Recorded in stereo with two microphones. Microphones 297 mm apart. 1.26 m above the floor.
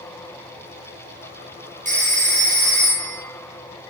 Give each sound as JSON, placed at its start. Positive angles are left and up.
{"t": 1.9, "sound": "a phone ringing", "side_deg": -25, "distance_m": 0.5}